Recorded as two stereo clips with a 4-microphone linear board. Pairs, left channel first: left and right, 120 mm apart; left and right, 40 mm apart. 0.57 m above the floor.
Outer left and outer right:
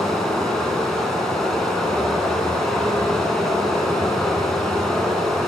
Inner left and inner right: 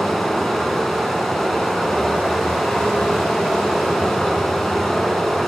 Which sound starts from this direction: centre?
Running water, at 0.0 s.